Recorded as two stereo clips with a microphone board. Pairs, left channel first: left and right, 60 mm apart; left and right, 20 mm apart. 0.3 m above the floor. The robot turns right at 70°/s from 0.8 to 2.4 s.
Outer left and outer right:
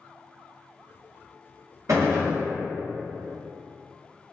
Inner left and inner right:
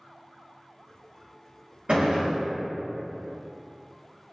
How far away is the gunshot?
About 1.0 m.